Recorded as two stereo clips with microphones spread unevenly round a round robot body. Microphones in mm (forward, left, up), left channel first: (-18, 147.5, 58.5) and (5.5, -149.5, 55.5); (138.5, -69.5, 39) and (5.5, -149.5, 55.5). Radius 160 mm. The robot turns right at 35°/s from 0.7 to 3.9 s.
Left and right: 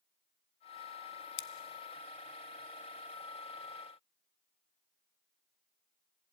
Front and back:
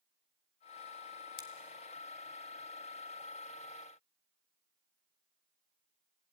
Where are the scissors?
60° left, 0.9 m; by 1.5 s 65° left, 0.9 m.